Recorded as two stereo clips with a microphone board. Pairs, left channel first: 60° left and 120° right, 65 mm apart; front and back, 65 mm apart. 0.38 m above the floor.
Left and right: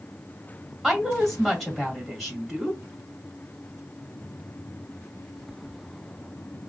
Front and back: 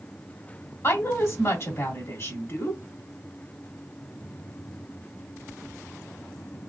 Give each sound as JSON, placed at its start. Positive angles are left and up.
{"t": 0.8, "sound": "a woman speaking", "azimuth_deg": -25, "distance_m": 1.7}